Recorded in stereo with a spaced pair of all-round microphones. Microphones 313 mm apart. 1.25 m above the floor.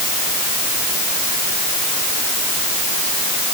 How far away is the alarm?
I don't hear an alarm.